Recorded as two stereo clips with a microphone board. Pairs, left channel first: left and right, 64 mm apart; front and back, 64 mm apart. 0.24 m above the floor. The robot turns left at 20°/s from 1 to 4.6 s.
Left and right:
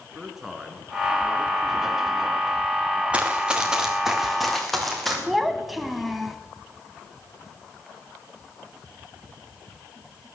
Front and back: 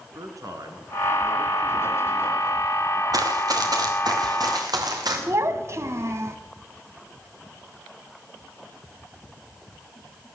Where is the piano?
I don't hear a piano.